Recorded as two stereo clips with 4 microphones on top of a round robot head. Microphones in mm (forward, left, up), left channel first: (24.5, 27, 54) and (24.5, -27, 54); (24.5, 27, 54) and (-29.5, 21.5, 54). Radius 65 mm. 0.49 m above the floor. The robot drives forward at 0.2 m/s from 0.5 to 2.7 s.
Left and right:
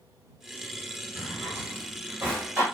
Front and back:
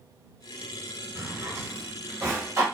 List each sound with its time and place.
1.1 s a drawer: 140° right, 1.2 m; by 2.6 s 150° right, 1.4 m